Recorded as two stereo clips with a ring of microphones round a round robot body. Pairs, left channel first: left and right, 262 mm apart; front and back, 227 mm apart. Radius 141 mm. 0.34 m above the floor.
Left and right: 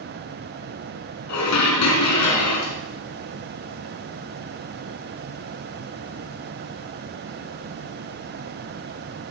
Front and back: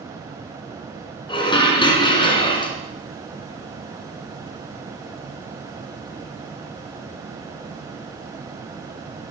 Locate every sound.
1.3 s dishes clattering: 70° left, 2.5 m